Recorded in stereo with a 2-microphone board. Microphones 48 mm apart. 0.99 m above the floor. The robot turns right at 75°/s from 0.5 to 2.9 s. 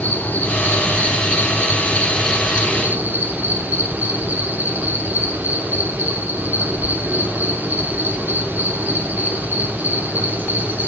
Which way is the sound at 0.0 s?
45° left.